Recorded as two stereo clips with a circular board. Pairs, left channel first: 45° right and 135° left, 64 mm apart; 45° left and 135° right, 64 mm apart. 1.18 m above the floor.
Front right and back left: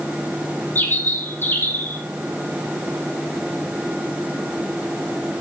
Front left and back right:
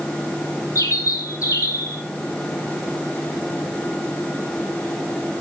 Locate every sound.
0.8 s a bird: 10° left, 3 m